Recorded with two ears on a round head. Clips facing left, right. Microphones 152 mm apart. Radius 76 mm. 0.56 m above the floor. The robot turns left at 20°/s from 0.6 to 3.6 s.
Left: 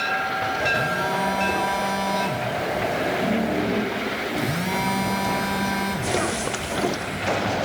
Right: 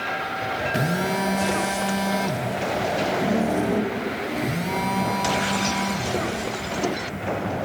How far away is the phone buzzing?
About 0.8 m.